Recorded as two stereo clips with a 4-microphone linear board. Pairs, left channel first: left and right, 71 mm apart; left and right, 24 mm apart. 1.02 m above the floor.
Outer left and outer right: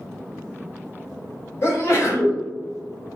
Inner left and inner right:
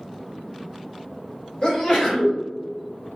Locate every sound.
1.6 s a sneeze: 40° left (ahead or behind), 1.1 m